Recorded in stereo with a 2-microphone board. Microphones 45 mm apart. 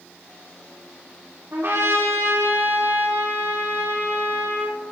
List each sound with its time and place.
1.5 s a trumpet: 65° right (ahead or behind), 6 m